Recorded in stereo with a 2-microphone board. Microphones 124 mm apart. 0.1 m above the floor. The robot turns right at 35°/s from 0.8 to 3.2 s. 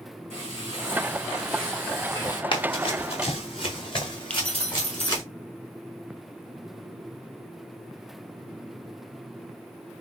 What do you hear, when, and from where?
0.3 s frying: 25° right, 3 m; by 2.4 s 35° left, 3 m
2.5 s running footsteps: 40° left (ahead or behind), 1.5 m; by 5.2 s 35° left (ahead or behind), 3 m
4.3 s keys jangling: 10° left (ahead or behind), 1.8 m